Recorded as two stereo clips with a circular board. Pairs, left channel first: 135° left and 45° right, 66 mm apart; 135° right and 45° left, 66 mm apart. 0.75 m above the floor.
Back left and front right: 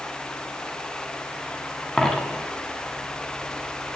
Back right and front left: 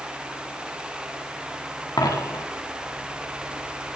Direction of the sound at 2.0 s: 145° right.